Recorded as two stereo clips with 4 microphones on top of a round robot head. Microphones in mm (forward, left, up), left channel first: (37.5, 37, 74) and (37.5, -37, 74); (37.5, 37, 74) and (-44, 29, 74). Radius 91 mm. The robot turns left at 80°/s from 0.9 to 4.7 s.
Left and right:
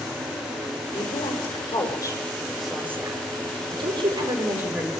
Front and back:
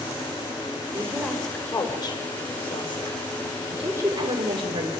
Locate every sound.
0.9 s a woman speaking: 130° left, 6 m; by 4.9 s 170° right, 6 m